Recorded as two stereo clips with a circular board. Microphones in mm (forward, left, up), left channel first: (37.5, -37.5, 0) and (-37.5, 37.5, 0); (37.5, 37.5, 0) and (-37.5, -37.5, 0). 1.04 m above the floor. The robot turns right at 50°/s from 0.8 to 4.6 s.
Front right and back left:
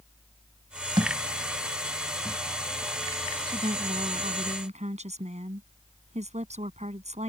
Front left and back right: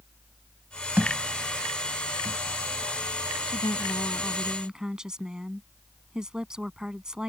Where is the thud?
155° left; by 2.4 s 135° right.